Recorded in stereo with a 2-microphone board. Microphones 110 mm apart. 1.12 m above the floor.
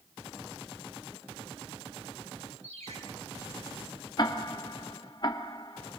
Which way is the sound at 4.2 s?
45° left (ahead or behind).